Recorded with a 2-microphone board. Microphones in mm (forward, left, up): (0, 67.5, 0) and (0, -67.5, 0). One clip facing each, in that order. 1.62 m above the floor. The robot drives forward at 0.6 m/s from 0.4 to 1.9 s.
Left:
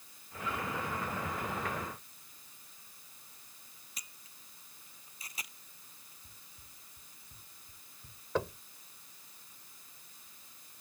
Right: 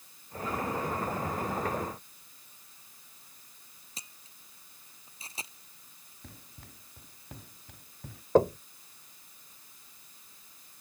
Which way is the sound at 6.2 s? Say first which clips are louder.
Right 10 dB; 75° right (ahead or behind).